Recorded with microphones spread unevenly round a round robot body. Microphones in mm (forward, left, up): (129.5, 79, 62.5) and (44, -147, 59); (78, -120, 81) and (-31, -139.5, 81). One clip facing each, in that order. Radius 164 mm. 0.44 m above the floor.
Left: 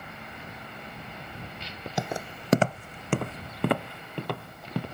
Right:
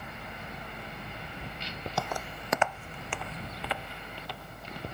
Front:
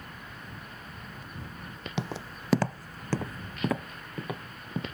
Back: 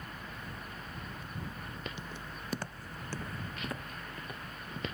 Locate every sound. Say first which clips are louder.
2.0 s footsteps: left 4 dB, front 8 dB; 5° right; by 4.8 s 40° left